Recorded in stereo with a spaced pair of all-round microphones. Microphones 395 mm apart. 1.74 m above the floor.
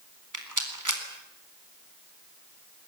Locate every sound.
0.3 s a rattle: 50° right (ahead or behind), 4 m